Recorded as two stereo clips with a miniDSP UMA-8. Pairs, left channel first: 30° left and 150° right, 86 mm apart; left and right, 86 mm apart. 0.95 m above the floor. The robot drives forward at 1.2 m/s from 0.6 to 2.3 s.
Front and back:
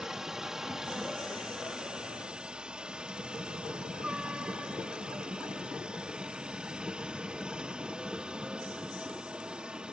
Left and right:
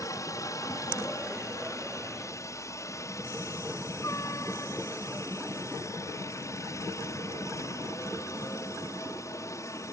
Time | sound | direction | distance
0.0 | a helicopter | 125° left | ?